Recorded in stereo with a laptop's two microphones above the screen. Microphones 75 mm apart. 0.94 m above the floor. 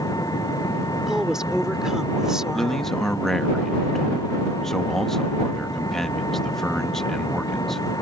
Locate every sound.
0.0 s an engine running: 65° left (ahead or behind)
1.1 s a woman speaking: 10° right (ahead or behind)
2.5 s a man speaking: 5° left (ahead or behind)